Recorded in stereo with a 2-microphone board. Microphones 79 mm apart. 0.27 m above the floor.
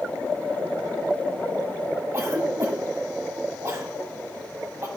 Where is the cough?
40° right (ahead or behind), 1.4 m.